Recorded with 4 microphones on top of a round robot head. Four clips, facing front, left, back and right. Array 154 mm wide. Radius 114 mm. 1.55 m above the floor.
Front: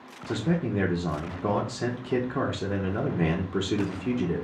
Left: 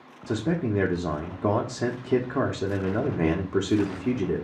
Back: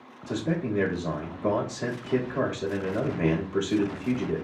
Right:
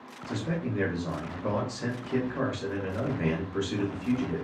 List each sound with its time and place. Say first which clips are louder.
0.3 s a man speaking: left 6 dB, front 1 dB; 70° left, 0.8 m